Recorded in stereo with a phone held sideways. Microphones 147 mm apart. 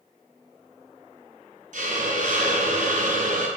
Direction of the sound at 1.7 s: 65° right (ahead or behind).